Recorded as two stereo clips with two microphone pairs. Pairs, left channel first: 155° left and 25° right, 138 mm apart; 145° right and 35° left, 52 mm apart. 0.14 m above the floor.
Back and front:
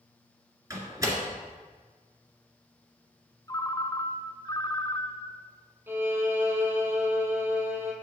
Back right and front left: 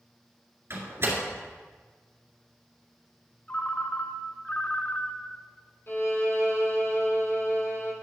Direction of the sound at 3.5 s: 175° right.